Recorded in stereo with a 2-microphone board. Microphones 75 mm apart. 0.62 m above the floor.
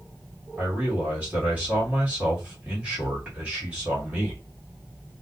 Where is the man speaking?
20° right (ahead or behind), 1.5 m.